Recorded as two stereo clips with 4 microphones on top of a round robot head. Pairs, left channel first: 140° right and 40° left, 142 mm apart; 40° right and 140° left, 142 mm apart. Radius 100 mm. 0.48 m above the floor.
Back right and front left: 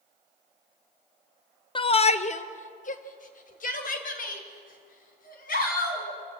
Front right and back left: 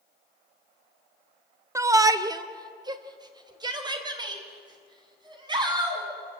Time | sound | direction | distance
1.8 | a shout | 165° right | 0.9 m